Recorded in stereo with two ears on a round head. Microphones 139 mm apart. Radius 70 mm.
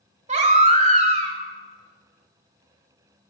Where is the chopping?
No chopping in this recording.